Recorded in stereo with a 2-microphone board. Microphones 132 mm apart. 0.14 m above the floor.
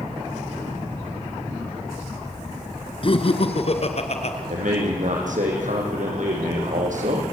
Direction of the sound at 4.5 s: 70° right (ahead or behind).